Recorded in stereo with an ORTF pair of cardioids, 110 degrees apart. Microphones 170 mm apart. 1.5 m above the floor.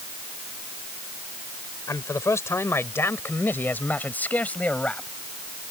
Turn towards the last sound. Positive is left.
turn(degrees=10)